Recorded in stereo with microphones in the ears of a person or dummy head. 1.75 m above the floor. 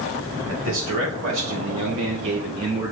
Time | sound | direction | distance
0.5 | a man speaking | 65° right (ahead or behind) | 1.4 m